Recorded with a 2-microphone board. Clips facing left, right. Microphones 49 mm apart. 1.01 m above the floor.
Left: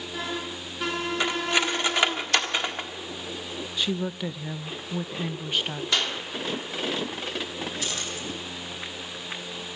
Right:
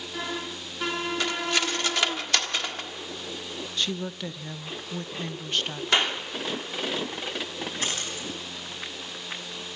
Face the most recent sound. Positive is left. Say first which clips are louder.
# right 1 dB
turn(degrees=-45)  # may be behind; listen again after turning